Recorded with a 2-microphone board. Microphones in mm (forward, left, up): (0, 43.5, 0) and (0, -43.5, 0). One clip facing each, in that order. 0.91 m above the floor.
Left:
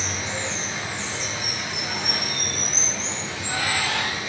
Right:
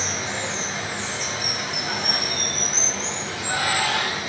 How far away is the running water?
About 2.5 m.